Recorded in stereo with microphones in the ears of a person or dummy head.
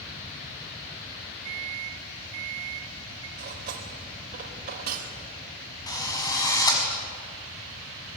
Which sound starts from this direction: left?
A drill, at 5.9 s.